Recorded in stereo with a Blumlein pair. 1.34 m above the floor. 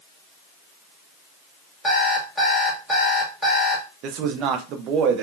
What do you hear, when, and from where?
1.8 s an alarm clock: straight ahead, 1.7 m
4.0 s a man speaking: 35° right, 0.5 m